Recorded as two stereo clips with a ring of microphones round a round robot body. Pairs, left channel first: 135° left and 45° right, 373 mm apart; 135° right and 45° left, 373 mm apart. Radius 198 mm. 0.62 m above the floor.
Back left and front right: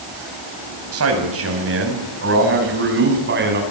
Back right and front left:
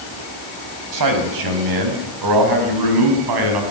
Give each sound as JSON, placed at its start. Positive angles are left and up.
{"t": 0.9, "sound": "a man speaking", "azimuth_deg": 5, "distance_m": 5.5}